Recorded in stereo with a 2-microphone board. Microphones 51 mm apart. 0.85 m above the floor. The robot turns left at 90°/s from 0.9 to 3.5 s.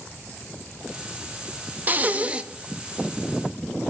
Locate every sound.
1.9 s breathing: 95° right, 0.5 m; by 2.4 s 145° right, 0.5 m